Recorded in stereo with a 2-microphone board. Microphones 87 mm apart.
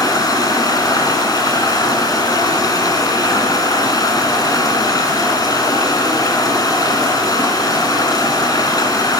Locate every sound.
0.0 s running water: 45° left (ahead or behind), 2 m